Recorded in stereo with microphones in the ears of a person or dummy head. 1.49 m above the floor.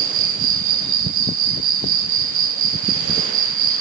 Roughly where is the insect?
Right.